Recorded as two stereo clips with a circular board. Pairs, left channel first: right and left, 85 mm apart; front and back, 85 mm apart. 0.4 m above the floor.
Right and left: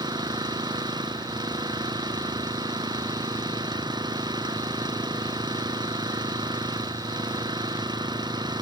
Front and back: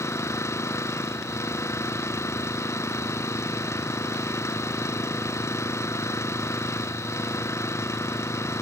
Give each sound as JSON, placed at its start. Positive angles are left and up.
{"t": 0.0, "sound": "an engine running", "azimuth_deg": 55}